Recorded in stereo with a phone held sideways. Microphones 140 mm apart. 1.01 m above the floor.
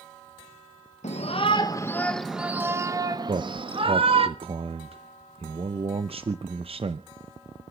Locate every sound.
1.0 s a shout: 55° left (ahead or behind), 0.7 m; by 4.3 s 40° right (ahead or behind), 1.4 m
3.3 s a man speaking: 45° right (ahead or behind), 0.6 m